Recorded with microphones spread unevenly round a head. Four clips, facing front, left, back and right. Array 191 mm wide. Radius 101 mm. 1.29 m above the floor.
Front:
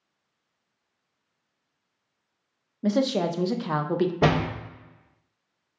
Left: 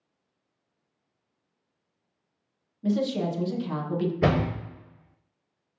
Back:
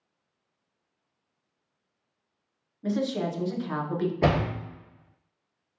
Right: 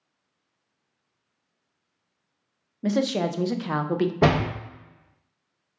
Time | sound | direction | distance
2.8 | a woman speaking | 35° right | 0.5 m
4.2 | a door slam | 60° right | 1.1 m